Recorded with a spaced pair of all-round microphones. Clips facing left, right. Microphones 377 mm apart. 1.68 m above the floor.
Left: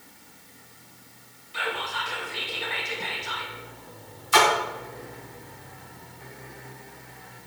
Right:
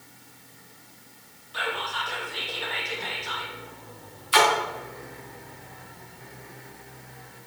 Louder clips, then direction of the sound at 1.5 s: Even; 35° left (ahead or behind).